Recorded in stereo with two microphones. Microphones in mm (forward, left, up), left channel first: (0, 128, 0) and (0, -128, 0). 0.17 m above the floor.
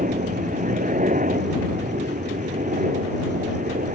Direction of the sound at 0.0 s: 30° right (ahead or behind).